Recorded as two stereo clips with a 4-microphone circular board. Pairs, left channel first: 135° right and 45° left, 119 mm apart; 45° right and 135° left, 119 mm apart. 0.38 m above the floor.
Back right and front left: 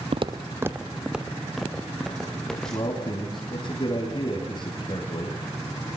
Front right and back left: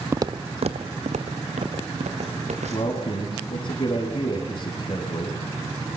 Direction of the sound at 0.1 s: 70° left.